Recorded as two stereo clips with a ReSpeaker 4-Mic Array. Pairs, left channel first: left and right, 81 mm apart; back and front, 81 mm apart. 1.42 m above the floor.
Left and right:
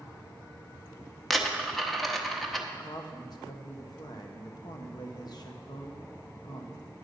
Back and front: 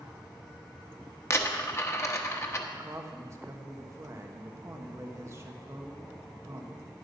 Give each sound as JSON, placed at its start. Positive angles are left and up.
{"t": 1.3, "sound": "a dropped coin", "azimuth_deg": 180, "distance_m": 0.8}
{"t": 2.7, "sound": "a woman speaking", "azimuth_deg": 55, "distance_m": 1.2}